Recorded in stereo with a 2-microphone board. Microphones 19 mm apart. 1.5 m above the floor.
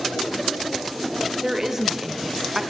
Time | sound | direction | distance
1.4 | a woman speaking | 25° right (ahead or behind) | 0.8 m